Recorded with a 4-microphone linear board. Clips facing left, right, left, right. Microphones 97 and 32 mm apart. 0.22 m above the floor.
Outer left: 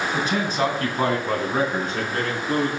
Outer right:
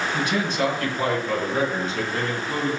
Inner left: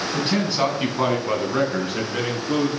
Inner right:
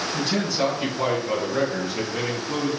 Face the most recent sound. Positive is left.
turn(degrees=50)  # may be behind; listen again after turning